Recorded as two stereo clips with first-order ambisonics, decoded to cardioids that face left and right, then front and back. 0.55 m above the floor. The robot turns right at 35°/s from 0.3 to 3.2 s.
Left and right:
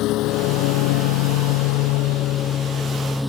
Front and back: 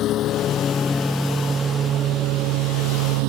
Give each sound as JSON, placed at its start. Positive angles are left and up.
{"t": 0.0, "sound": "a lawn mower", "azimuth_deg": 50}